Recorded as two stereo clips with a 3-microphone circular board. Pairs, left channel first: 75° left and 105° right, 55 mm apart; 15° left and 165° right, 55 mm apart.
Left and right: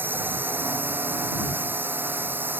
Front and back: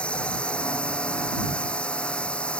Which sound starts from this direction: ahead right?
A drone, at 0.0 s.